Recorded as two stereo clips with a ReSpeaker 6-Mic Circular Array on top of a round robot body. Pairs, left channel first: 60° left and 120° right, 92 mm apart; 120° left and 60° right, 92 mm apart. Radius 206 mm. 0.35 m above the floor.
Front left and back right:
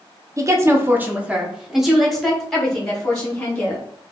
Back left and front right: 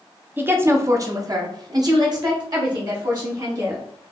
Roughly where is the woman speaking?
Behind right.